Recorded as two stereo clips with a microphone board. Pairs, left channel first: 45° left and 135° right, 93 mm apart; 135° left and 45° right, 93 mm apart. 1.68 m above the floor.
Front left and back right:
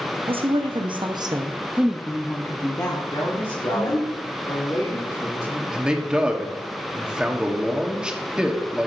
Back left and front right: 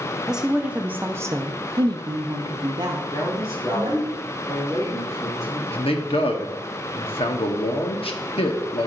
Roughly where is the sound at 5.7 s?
Behind left.